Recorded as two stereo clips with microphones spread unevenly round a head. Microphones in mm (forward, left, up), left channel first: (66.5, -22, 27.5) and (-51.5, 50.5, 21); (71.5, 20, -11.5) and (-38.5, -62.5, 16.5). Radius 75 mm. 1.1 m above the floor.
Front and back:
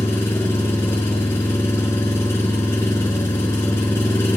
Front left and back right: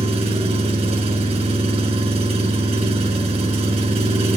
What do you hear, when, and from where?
0.0 s an engine running: 105° right, 3.5 m